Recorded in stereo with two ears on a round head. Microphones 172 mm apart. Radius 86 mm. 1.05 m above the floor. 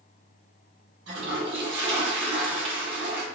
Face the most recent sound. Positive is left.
turn(degrees=-60)  # may be behind; listen again after turning